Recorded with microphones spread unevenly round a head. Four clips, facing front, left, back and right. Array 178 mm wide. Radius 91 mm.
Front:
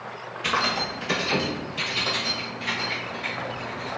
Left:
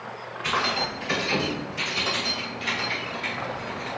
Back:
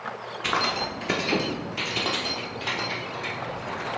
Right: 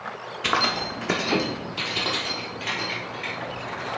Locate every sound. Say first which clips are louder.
0.4 s keys jangling: right 1 dB, front 1 dB; 100° right, 1.5 m; by 3.9 s straight behind, 3 m